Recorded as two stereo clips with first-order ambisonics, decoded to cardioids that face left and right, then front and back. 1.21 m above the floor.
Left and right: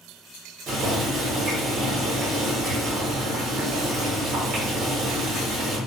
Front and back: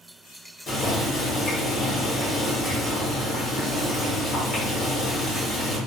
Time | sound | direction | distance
0.7 | boiling | 55° right | 1.1 m